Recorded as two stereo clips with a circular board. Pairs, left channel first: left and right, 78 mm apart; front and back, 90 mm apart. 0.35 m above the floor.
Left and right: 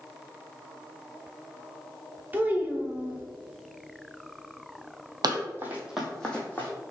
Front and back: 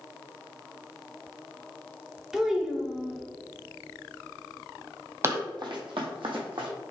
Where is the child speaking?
100° right, 0.7 m.